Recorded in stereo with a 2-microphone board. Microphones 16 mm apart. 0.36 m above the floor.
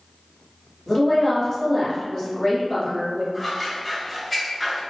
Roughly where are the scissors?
Centre.